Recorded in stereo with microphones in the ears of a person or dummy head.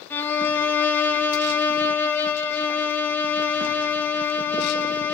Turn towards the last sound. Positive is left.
turn(degrees=15)  # may be behind; listen again after turning